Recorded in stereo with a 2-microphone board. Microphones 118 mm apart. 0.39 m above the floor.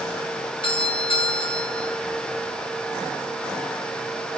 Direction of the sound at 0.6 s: 50° left (ahead or behind).